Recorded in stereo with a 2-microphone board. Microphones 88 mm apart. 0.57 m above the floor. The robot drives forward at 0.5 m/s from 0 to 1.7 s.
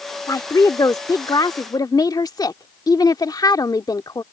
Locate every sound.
0.3 s a woman speaking: 45° left (ahead or behind); by 4.2 s 55° left (ahead or behind)